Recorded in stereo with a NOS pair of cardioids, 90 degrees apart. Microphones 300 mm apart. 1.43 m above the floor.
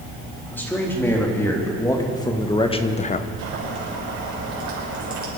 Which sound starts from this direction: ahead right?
Boiling, at 3.4 s.